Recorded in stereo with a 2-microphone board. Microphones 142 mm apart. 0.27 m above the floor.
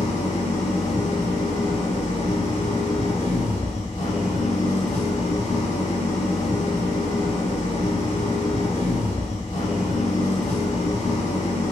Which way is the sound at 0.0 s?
55° left (ahead or behind).